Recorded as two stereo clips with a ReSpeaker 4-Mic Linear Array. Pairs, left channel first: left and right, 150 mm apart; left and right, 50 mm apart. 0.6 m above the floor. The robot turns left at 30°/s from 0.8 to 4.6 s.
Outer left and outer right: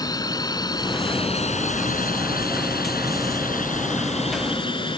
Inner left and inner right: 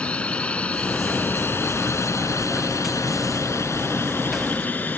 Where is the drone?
25° left (ahead or behind); by 5.0 s 35° left (ahead or behind).